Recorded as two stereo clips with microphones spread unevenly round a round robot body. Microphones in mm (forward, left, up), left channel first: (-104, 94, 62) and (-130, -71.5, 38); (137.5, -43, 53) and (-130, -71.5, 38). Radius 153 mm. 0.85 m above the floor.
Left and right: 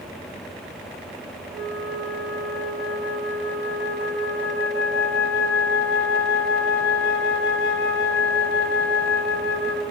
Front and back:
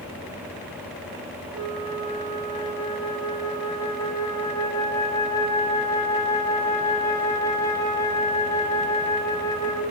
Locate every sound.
1.5 s a flute: 85° left, 6 m